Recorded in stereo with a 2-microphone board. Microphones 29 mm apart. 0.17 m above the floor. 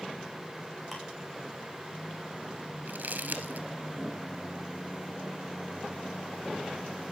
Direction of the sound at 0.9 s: Centre (ahead or behind).